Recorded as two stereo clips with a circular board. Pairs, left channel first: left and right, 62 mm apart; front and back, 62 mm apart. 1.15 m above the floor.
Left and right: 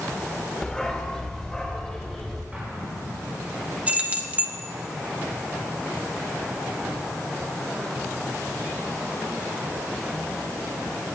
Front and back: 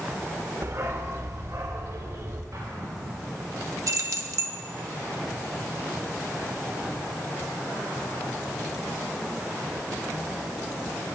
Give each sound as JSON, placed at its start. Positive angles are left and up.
{"t": 0.6, "sound": "a dog barking", "azimuth_deg": 165, "distance_m": 1.1}
{"t": 2.5, "sound": "an explosion", "azimuth_deg": -160, "distance_m": 4.5}
{"t": 3.9, "sound": "keys jangling", "azimuth_deg": -155, "distance_m": 1.0}